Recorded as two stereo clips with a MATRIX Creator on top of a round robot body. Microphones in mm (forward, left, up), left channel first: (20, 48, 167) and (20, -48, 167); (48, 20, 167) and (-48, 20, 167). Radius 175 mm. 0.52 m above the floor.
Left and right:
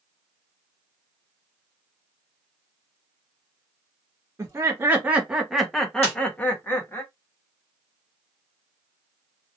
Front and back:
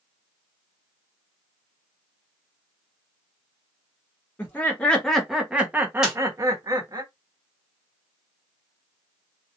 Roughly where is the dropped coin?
I don't hear a dropped coin.